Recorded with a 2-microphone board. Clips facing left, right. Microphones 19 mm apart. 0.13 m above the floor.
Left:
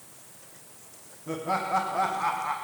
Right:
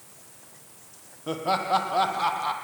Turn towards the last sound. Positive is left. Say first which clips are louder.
# right 3 dB
turn(degrees=-65)  # may be behind; listen again after turning